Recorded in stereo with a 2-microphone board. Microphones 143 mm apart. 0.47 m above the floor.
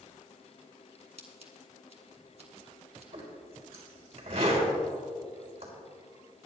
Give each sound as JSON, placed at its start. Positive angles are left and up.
{"t": 1.2, "sound": "scissors", "side_deg": -50, "distance_m": 2.0}
{"t": 3.1, "sound": "a zipper", "side_deg": -45, "distance_m": 4.0}